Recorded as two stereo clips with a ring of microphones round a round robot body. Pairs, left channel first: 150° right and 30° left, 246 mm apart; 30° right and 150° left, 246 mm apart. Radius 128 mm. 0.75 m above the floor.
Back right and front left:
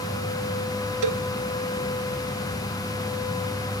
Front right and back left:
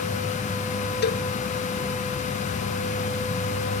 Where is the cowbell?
20° left.